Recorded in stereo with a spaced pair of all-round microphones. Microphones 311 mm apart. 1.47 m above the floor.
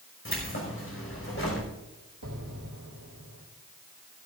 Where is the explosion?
80° right, 3 m.